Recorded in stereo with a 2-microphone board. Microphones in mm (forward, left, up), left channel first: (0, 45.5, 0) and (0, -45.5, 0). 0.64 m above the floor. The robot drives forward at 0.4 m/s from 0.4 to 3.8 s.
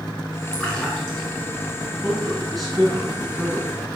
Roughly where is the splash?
Centre.